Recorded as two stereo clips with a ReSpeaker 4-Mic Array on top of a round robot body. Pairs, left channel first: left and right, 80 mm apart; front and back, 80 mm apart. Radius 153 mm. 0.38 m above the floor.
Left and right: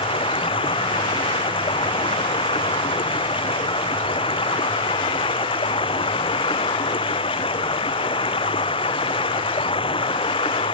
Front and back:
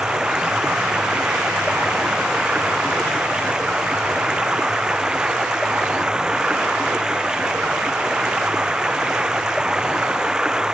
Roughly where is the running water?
Left.